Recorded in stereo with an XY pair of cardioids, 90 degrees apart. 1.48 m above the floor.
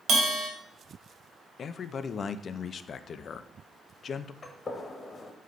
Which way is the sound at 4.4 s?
35° left.